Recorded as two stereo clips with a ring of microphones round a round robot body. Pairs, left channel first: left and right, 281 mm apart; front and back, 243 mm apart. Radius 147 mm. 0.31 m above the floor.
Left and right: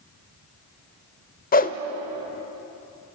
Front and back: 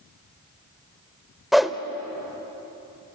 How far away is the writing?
I don't hear writing.